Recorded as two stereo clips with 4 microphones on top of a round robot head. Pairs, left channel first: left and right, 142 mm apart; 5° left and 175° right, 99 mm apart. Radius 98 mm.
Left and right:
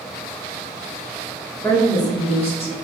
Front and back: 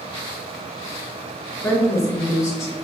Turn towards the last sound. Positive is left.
turn(degrees=60)